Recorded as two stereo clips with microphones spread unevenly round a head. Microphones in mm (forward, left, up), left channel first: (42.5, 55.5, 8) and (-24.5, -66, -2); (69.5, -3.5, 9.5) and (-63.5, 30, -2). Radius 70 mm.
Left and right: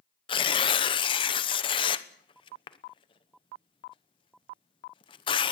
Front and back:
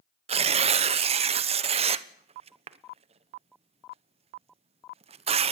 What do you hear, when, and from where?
0.3 s tearing paper: 120° left, 1.1 m